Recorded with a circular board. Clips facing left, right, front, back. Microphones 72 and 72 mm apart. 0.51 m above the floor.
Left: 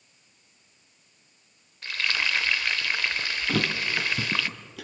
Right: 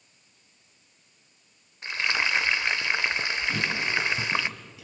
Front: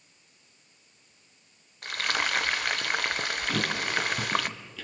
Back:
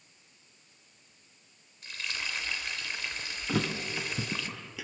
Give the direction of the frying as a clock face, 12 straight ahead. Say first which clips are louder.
Right 1 dB, front 9 dB; 1 o'clock.